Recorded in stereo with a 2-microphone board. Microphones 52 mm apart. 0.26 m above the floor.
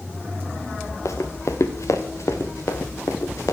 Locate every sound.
1.1 s running footsteps: 70° left (ahead or behind), 2 m; by 3.5 s 85° left, 3.5 m